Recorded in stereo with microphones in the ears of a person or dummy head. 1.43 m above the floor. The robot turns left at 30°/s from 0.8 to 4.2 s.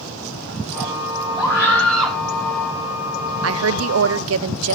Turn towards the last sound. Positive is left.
turn(degrees=-75)  # may be behind; listen again after turning